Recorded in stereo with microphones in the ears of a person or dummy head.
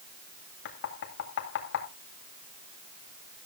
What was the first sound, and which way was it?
Knocking, 70° left (ahead or behind).